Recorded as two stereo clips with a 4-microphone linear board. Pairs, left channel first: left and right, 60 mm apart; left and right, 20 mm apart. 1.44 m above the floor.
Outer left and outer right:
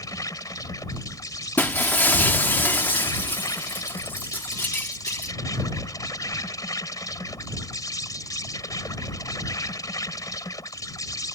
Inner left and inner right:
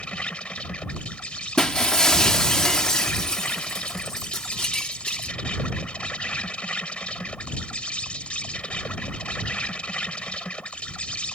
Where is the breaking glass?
30° left (ahead or behind).